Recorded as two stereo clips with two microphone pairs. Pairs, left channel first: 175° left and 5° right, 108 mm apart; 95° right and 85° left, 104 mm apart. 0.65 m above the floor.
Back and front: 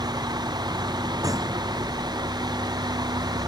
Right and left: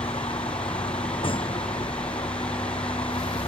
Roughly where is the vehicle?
Ahead right.